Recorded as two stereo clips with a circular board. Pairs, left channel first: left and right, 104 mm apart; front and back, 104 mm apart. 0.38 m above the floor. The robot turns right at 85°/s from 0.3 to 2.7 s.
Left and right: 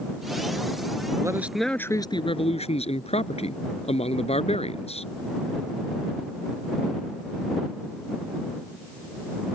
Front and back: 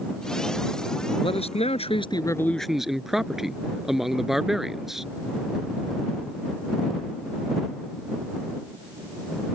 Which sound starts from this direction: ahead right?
A man speaking, at 1.2 s.